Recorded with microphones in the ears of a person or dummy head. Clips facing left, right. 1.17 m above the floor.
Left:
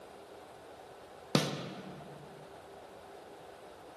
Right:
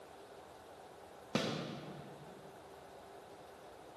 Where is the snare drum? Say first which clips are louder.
Left 6 dB; 55° left (ahead or behind), 0.7 m.